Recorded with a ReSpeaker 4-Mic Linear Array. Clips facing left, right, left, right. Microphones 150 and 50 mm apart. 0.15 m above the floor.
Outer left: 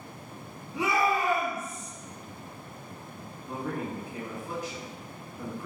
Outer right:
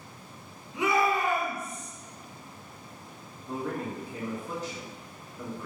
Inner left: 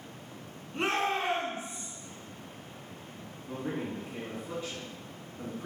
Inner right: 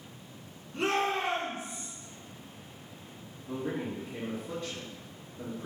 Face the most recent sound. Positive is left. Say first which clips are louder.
# outer right 1 dB, inner right 1 dB
turn(degrees=15)  # may be behind; listen again after turning